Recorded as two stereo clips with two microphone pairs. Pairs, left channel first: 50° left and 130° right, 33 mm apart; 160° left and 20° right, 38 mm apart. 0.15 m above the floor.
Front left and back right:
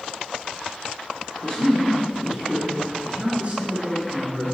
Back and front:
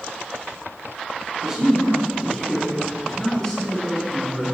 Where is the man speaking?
45° left, 1.7 m; by 4.4 s 130° right, 3 m.